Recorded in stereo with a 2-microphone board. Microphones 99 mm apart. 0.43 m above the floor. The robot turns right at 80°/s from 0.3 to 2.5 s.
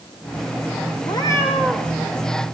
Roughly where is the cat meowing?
Behind left.